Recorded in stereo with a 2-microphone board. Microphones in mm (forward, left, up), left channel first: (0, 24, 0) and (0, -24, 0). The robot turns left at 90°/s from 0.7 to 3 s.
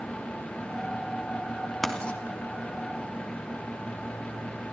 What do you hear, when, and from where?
1.8 s writing: 5° left (ahead or behind), 3 m; by 2.2 s 35° left (ahead or behind), 3 m